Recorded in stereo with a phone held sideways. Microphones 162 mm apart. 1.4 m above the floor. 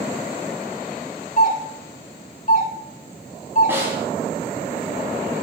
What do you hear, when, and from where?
1.4 s a doorbell: 50° left (ahead or behind), 2 m
3.7 s a snare drum: 15° right (ahead or behind), 2 m